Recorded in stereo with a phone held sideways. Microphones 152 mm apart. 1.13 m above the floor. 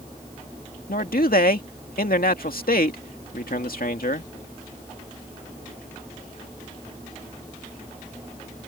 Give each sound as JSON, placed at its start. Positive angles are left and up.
{"t": 0.9, "sound": "a man speaking", "side_deg": 75}